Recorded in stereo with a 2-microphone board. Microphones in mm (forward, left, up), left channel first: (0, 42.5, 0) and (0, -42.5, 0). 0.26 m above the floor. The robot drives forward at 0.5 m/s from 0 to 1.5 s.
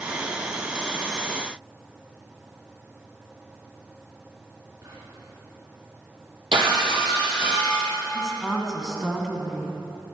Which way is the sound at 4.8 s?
45° right (ahead or behind).